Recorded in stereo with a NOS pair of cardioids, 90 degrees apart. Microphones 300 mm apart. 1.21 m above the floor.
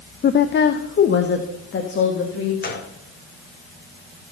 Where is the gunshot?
35° left, 2 m.